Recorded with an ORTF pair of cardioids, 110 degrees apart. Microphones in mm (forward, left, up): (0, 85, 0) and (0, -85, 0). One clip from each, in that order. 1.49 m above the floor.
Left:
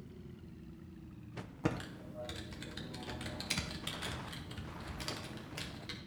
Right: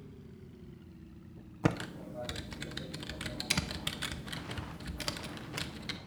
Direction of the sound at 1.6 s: 30° right.